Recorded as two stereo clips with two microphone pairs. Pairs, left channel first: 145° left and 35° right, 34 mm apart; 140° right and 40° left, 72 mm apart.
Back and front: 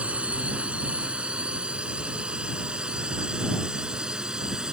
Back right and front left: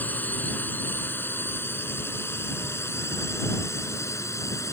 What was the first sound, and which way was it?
A drone, 75° right.